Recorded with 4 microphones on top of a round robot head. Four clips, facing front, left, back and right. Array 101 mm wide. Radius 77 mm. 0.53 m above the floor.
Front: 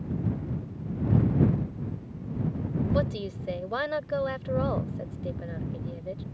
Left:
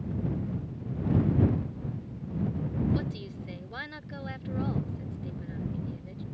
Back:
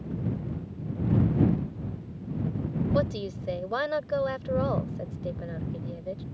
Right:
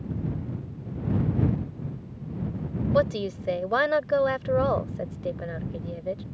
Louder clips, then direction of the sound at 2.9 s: Right 11 dB, back 1 dB; 100° right.